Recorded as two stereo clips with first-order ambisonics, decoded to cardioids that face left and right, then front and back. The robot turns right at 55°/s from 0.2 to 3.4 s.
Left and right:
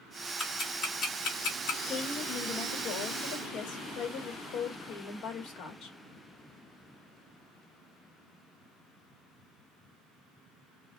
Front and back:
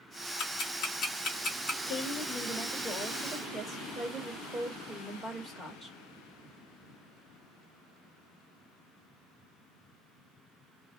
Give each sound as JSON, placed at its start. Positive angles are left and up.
{"t": 0.4, "sound": "ticking", "azimuth_deg": 5, "distance_m": 1.5}
{"t": 1.9, "sound": "a woman speaking", "azimuth_deg": 25, "distance_m": 1.1}